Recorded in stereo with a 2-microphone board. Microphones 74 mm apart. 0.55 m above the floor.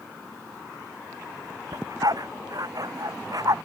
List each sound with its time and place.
1.7 s a dog barking: 60° right (ahead or behind); by 3.5 s 55° right (ahead or behind)